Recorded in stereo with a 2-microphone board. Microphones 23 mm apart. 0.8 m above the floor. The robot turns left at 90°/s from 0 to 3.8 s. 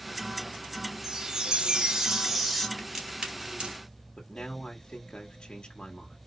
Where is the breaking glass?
I don't hear breaking glass.